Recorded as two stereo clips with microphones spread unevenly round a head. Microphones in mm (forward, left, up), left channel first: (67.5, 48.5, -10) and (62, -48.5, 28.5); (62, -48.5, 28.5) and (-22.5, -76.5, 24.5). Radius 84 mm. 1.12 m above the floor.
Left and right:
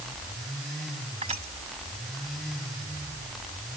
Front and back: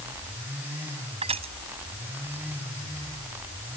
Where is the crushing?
150° right.